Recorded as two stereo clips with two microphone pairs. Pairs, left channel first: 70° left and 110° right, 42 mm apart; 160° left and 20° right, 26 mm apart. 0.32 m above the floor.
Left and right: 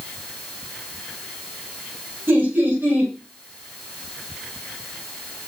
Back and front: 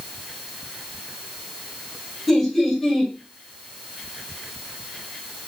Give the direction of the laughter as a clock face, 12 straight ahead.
4 o'clock.